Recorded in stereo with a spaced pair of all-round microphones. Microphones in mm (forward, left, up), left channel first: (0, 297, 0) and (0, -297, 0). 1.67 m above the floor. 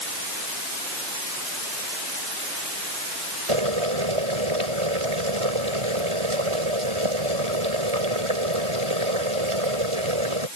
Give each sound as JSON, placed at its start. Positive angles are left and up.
{"t": 3.5, "sound": "boiling", "side_deg": -60}